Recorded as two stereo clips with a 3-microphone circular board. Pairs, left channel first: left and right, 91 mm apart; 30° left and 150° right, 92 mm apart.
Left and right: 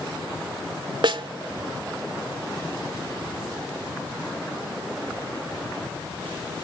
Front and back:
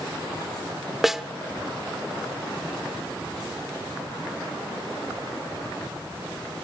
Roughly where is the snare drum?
Ahead right.